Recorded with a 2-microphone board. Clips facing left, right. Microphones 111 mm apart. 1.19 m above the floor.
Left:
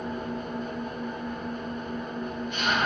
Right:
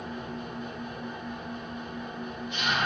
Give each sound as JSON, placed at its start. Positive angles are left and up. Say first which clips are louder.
{"t": 0.0, "sound": "an engine running", "louder": "left 4 dB", "side_deg": 45, "distance_m": 1.2}